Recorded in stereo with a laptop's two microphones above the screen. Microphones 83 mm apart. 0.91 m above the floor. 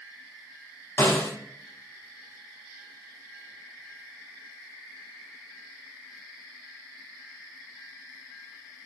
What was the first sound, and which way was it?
A snare drum, 30° left (ahead or behind).